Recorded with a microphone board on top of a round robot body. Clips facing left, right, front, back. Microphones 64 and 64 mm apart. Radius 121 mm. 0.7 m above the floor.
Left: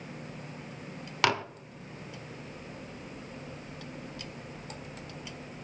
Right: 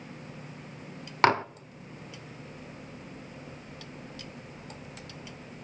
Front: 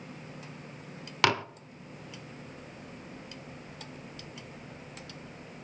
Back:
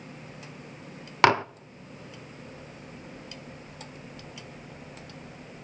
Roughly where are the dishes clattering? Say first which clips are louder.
Right 5 dB, back 7 dB; behind right.